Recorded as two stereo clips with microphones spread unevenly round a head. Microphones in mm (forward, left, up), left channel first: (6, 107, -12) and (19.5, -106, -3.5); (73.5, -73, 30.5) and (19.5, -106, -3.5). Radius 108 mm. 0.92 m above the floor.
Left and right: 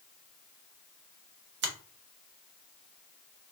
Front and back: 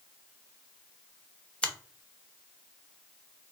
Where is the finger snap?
50° right, 0.7 m.